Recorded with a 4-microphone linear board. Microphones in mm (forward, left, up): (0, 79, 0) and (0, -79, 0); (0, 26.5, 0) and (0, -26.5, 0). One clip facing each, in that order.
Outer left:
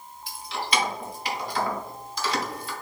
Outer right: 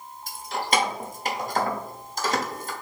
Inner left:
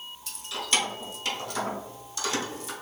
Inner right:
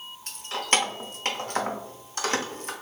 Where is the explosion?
I don't hear an explosion.